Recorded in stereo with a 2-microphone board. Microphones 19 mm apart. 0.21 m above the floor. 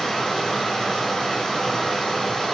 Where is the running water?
30° left (ahead or behind), 1.9 m.